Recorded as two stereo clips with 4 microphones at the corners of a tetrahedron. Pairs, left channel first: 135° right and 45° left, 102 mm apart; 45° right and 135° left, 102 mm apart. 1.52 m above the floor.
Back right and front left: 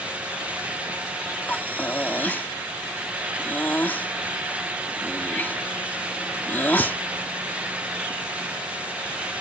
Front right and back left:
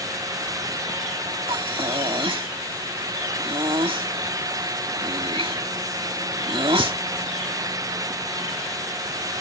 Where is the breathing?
155° left.